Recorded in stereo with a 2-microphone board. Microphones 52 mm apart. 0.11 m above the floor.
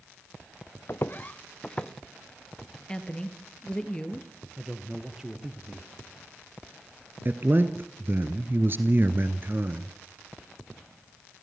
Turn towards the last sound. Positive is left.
turn(degrees=-45)  # may be behind; listen again after turning